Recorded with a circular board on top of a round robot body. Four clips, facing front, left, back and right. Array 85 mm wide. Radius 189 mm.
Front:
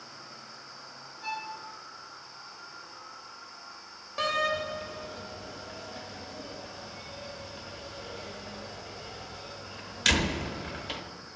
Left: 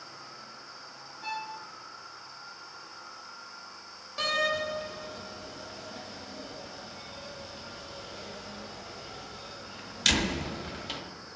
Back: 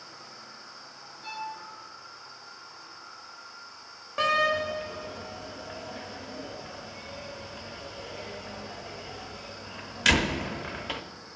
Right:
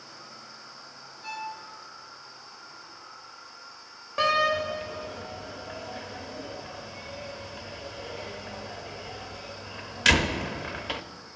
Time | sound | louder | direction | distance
1.2 | a violin | even, even | 55° left | 2.5 m
4.2 | a door slam | right 6 dB, back 4 dB | 120° right | 0.9 m